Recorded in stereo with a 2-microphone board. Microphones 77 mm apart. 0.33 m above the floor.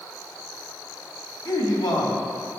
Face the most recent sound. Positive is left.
turn(degrees=55)  # may be behind; listen again after turning